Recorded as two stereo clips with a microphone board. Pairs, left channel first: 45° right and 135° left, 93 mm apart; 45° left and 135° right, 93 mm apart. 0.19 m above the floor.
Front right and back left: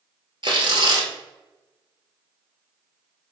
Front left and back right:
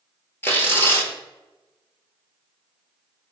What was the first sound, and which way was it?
Tearing paper, 110° left.